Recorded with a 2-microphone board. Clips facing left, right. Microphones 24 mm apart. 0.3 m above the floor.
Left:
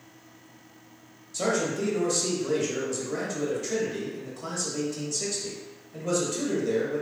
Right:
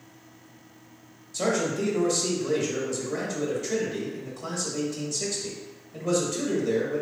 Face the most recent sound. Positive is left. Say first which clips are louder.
# right 1 dB
turn(degrees=5)  # may be behind; listen again after turning